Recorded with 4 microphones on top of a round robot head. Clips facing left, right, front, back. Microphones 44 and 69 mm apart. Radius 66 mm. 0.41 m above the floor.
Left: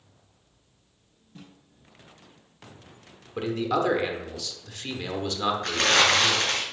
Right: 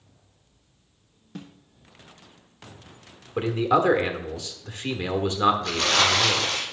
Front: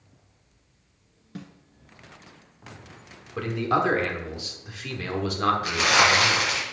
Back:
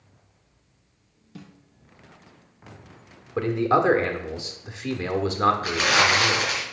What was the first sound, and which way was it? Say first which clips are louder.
A snare drum: right 7 dB, front 3 dB; 60° right.